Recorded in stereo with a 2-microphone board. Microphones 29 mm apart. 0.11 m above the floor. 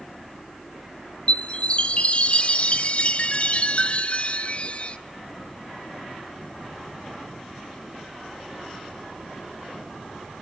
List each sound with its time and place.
1.3 s a chime: 40° left (ahead or behind), 0.6 m